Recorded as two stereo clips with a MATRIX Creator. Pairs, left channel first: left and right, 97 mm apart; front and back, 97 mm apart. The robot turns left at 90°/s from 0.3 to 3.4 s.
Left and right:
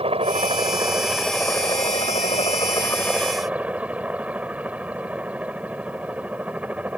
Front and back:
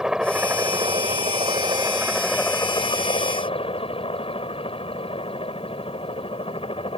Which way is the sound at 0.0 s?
95° right.